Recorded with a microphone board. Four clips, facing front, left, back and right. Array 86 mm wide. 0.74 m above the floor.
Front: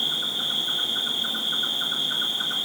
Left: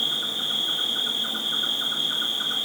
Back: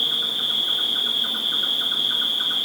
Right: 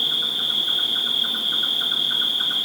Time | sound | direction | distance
0.0 | an insect | 125° right | 0.9 m